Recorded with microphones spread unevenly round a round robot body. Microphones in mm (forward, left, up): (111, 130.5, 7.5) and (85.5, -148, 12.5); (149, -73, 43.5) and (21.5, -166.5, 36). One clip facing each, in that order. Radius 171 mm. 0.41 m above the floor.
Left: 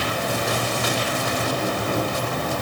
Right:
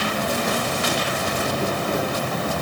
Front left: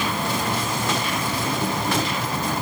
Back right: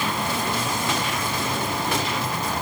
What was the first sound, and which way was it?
An insect, 10° right.